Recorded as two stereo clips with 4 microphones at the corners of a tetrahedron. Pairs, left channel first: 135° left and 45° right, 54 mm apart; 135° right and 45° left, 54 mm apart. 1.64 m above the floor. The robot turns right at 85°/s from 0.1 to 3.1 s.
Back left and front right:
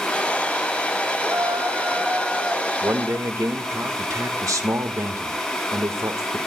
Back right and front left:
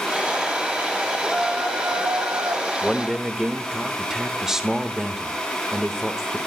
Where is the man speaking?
60° right, 1.6 m; by 6.4 s 35° right, 1.6 m.